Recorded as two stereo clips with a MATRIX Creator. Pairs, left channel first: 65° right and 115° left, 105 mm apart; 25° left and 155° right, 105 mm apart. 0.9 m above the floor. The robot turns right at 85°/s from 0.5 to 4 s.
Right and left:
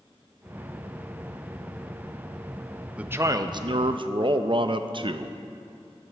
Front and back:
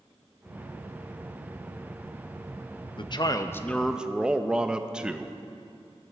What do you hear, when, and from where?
3.0 s a man speaking: 35° left, 0.6 m; by 5.4 s 125° left, 0.6 m